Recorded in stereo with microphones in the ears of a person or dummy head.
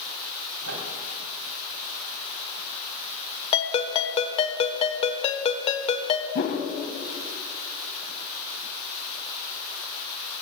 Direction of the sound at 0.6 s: 90° right.